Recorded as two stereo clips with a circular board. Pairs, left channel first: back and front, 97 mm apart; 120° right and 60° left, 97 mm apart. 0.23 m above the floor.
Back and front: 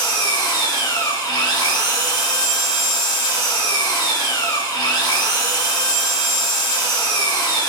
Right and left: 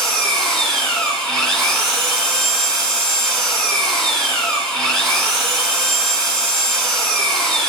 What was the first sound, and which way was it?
An engine running, 155° left.